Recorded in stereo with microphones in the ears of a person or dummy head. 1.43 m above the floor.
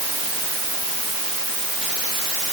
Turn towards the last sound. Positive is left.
No sound to turn to.